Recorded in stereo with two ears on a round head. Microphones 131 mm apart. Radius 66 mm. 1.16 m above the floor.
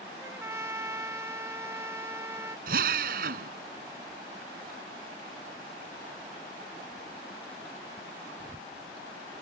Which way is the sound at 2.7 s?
70° right (ahead or behind).